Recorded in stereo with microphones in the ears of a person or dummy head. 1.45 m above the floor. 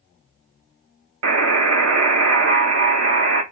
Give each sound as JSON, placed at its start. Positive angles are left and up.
{"t": 1.2, "sound": "a buzzer", "side_deg": -80, "distance_m": 0.7}